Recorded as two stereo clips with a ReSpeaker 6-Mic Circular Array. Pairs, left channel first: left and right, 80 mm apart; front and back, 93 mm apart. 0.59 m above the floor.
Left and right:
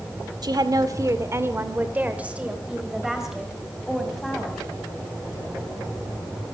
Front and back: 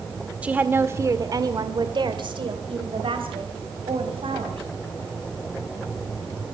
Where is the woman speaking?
105° right, 1.6 m; by 4.6 s straight behind, 4 m.